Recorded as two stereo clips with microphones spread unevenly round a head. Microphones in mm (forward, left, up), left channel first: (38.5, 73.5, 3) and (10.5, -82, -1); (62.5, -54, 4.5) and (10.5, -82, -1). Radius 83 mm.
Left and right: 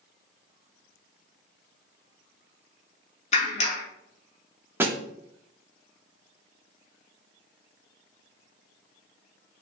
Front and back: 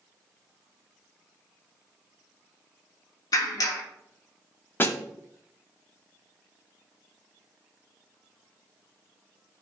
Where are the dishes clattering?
No dishes clattering in this recording.